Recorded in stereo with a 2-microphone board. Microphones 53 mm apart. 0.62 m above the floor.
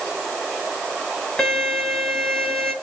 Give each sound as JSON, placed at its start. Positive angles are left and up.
{"t": 1.4, "sound": "a violin", "side_deg": 5, "distance_m": 6.0}